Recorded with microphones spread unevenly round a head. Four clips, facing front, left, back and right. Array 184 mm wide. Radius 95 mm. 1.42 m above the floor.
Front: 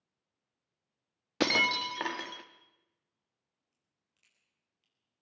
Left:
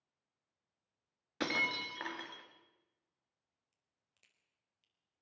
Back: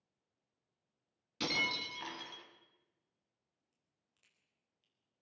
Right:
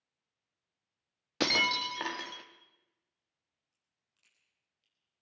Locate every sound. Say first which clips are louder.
1.4 s breaking glass: right 6 dB, front 9 dB; 25° right, 1.9 m
3.7 s a crack: even, front 1 dB; 90° left, 4.5 m